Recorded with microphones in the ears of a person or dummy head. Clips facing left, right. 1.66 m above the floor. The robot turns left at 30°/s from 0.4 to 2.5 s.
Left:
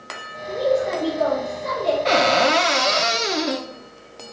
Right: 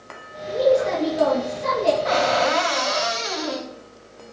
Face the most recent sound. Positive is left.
turn(degrees=30)  # may be behind; listen again after turning